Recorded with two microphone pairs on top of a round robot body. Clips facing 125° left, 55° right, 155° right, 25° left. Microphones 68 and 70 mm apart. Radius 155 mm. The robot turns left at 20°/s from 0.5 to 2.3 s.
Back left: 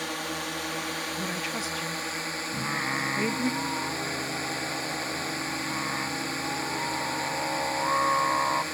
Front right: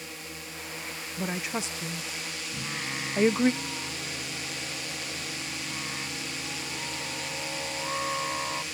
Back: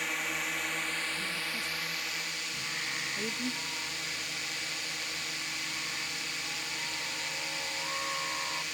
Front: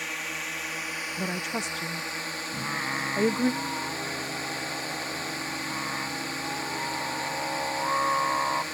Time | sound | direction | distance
0.0 | a drone | 115° left | ?
1.2 | a woman speaking | 15° left | ?
2.5 | singing | 70° left | ?